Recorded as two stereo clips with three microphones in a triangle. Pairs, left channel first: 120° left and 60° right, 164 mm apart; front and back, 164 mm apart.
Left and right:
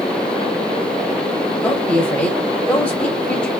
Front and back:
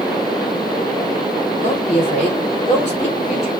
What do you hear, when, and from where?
1.6 s a woman speaking: 40° left, 2 m